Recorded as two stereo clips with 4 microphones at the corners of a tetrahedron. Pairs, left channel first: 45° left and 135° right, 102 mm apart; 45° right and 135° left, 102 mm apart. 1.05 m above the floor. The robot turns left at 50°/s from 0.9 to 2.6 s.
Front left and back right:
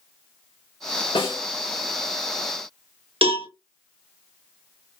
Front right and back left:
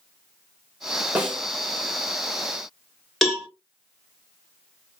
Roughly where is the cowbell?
Behind right.